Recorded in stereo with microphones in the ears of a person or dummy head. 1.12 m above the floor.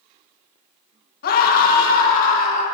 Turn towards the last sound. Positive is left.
turn(degrees=50)  # may be behind; listen again after turning